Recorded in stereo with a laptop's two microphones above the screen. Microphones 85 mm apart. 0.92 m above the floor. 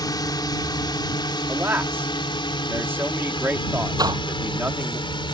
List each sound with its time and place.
0.0 s a drone: 50° left (ahead or behind); by 5.3 s 75° left (ahead or behind)
1.5 s a man speaking: 25° right (ahead or behind)
4.0 s a door slam: 50° right (ahead or behind)